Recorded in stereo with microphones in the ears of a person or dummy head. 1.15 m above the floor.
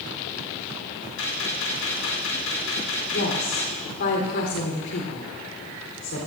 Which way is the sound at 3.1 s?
65° left (ahead or behind).